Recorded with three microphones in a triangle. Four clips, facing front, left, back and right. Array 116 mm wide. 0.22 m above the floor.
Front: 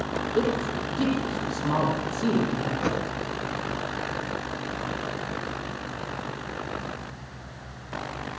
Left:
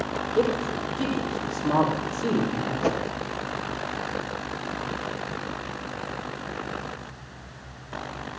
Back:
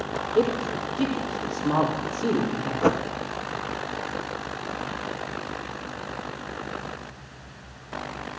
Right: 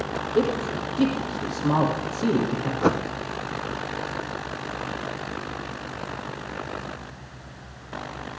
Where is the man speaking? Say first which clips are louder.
Right 1 dB, back 3 dB; 85° right, 8.5 m.